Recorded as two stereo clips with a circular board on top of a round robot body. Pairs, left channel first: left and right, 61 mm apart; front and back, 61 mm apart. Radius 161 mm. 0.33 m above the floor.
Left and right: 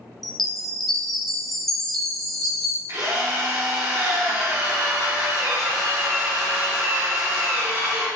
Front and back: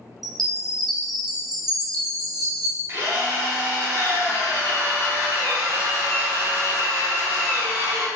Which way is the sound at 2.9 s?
130° right.